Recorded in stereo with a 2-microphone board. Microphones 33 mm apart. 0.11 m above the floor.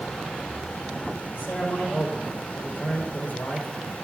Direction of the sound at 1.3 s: 60° left (ahead or behind).